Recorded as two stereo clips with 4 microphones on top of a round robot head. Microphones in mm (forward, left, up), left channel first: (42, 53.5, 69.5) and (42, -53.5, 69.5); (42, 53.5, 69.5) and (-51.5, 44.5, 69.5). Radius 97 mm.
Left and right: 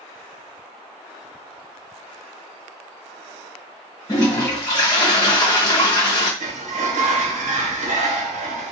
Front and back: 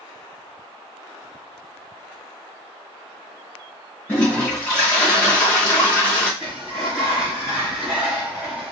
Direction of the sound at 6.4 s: 90° right.